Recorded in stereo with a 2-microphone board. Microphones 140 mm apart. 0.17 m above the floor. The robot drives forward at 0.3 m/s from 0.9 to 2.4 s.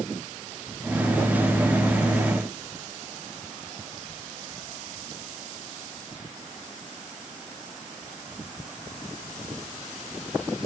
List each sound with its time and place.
Only background noise.